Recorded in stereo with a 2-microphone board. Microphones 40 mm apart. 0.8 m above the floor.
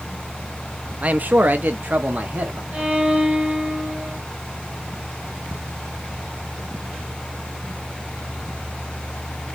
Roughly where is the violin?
Right.